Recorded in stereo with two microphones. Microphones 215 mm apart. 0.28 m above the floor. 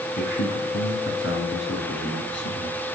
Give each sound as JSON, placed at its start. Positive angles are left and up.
{"t": 0.2, "sound": "a man speaking", "side_deg": 60, "distance_m": 2.5}